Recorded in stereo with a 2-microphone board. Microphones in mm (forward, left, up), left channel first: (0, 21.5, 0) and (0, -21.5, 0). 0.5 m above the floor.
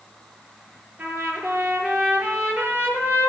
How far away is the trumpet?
About 5.5 m.